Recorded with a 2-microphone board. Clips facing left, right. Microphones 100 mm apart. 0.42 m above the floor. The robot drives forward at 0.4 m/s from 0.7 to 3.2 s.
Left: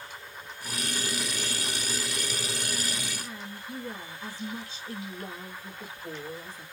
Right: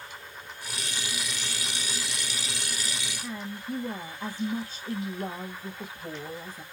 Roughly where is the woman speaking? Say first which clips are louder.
Right 5 dB; right.